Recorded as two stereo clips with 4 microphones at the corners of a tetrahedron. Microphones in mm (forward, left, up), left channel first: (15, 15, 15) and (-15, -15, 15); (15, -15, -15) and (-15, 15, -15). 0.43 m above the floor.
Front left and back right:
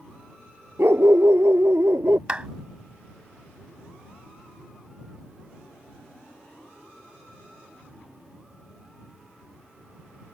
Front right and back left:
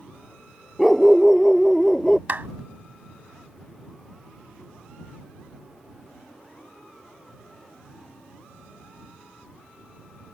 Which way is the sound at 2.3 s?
170° left.